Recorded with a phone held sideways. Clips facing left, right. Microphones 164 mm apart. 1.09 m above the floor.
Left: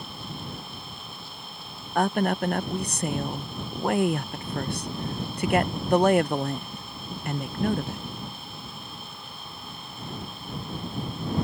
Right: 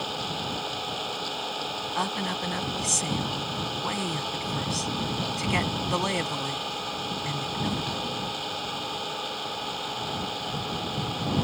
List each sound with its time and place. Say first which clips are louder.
0.0 s an engine running: right 6 dB; 85° right
1.9 s a woman speaking: left 9 dB; 55° left (ahead or behind)